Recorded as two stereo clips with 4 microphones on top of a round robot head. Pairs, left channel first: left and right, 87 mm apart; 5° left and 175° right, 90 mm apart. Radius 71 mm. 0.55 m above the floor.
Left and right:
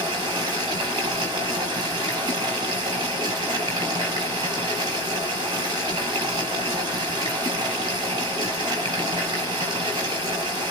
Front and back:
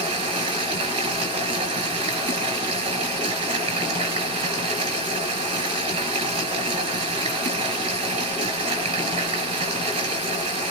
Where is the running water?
145° right, 3 m.